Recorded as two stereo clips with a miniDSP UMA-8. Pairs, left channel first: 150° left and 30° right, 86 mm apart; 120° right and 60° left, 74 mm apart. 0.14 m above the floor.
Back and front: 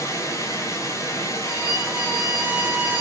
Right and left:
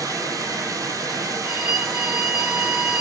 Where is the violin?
5° left, 1.8 m.